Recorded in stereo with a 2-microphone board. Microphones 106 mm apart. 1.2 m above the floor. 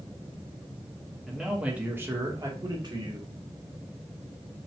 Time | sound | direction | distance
1.3 | a man speaking | centre (ahead or behind) | 1.1 m